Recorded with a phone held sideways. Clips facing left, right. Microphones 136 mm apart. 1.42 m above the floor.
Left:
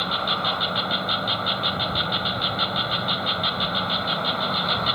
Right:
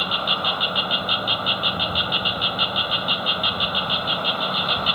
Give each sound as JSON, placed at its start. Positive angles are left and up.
{"t": 0.0, "sound": "an insect", "side_deg": -5}